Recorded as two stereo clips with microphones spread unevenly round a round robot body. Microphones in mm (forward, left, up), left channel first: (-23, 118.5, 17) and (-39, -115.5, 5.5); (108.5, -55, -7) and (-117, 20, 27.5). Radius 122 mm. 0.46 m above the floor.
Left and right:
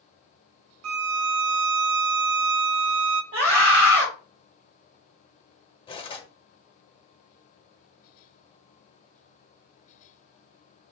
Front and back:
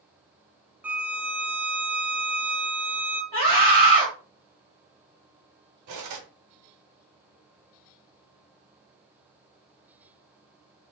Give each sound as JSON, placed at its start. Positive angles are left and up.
{"t": 0.8, "sound": "a violin", "azimuth_deg": -110, "distance_m": 0.5}
{"t": 3.3, "sound": "a scream", "azimuth_deg": -155, "distance_m": 2.0}
{"t": 5.9, "sound": "cutlery clinking", "azimuth_deg": 155, "distance_m": 1.1}